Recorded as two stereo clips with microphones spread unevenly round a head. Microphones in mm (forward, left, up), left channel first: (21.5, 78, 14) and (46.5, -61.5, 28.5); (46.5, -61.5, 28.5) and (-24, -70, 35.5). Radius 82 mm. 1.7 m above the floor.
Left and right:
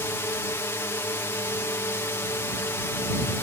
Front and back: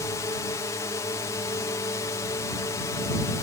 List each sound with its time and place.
0.0 s a drone: 35° left